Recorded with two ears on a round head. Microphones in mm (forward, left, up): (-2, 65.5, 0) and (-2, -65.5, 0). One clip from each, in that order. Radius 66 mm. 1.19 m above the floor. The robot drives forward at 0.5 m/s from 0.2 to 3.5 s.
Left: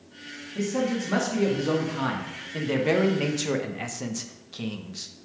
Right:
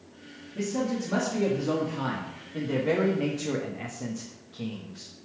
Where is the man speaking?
25° left (ahead or behind), 2 m; by 5.1 s 70° left (ahead or behind), 1.0 m.